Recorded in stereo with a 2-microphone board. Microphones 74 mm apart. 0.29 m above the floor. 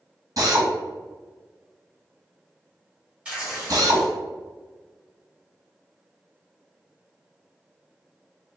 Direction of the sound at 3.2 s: 15° right (ahead or behind).